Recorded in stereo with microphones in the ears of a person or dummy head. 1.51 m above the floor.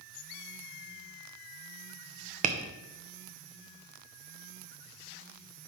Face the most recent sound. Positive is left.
turn(degrees=-45)  # may be behind; listen again after turning